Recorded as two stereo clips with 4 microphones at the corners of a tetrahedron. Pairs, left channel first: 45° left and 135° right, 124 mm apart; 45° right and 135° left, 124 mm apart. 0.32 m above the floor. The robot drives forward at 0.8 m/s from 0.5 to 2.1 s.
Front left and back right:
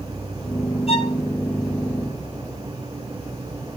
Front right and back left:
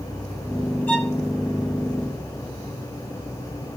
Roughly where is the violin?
Ahead left.